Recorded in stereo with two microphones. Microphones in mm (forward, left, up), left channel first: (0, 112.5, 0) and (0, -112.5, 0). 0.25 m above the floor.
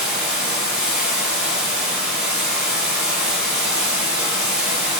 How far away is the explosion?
No explosion in this recording.